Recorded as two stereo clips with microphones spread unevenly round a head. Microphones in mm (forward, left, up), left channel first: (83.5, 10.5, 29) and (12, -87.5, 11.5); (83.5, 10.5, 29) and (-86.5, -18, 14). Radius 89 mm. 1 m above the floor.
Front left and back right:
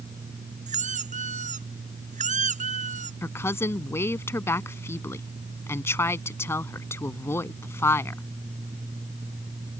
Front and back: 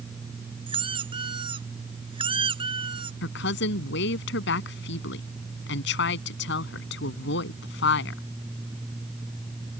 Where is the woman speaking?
15° right.